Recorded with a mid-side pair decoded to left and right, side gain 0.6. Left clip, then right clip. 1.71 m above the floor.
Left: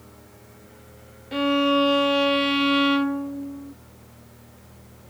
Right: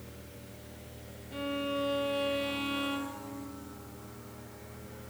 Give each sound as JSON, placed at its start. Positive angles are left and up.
{"t": 1.3, "sound": "a violin", "azimuth_deg": 60, "distance_m": 0.5}